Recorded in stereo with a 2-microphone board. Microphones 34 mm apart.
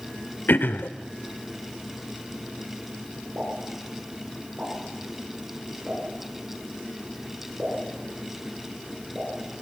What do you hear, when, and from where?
0.5 s throat clearing: 70° left (ahead or behind), 1.1 m
3.4 s a pop: 35° right (ahead or behind), 9.5 m